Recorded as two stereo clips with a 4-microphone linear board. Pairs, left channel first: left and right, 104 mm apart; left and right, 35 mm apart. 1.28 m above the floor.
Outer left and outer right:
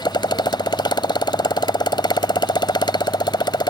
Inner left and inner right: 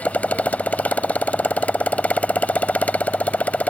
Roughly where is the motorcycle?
Left.